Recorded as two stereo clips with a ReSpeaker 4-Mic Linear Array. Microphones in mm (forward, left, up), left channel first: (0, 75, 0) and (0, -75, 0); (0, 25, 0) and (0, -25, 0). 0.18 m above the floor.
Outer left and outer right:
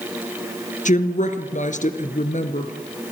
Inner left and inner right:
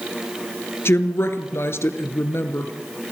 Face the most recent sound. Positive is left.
turn(degrees=55)  # may be behind; listen again after turning